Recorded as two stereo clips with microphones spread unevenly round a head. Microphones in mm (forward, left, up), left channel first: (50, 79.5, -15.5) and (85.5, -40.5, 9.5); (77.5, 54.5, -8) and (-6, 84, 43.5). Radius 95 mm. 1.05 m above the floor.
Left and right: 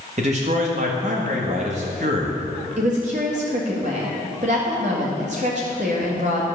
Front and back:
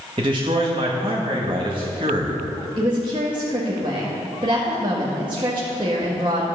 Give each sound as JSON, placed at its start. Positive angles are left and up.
{"t": 0.2, "sound": "a man speaking", "azimuth_deg": -130, "distance_m": 1.3}
{"t": 2.8, "sound": "a woman speaking", "azimuth_deg": -130, "distance_m": 1.7}